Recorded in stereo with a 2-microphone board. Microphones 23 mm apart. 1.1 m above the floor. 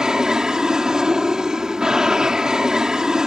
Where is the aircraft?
25° right (ahead or behind).